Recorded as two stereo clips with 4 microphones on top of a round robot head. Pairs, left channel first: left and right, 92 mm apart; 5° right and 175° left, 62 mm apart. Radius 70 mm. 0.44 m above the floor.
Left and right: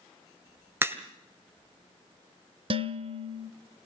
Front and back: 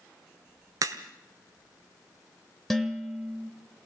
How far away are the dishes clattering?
About 1.1 m.